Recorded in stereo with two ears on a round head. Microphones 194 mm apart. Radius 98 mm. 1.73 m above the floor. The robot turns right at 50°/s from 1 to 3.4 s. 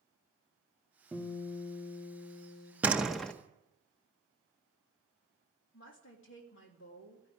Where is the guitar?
5° right, 2.5 m; by 2.7 s 75° left, 2.5 m.